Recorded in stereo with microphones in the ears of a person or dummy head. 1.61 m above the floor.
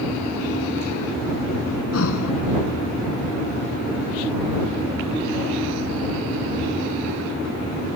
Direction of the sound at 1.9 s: 80° left.